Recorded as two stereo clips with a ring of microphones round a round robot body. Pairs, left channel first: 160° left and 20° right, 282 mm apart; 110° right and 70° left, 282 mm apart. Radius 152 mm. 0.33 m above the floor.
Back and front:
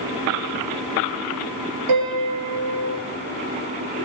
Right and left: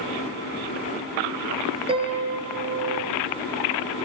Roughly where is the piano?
Ahead.